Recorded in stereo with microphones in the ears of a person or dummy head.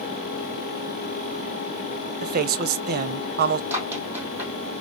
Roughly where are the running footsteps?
Centre.